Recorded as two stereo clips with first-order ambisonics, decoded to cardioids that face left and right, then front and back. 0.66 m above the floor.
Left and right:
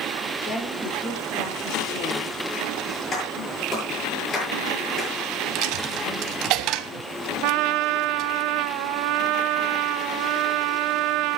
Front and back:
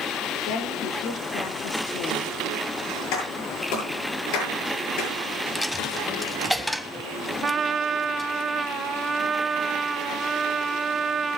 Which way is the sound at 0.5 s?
25° left.